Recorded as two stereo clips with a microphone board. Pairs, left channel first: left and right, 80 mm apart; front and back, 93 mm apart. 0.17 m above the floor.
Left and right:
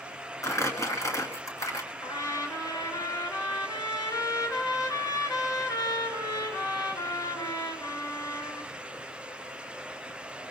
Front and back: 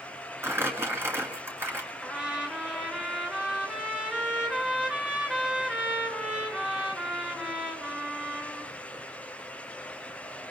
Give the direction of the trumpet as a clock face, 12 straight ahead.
9 o'clock.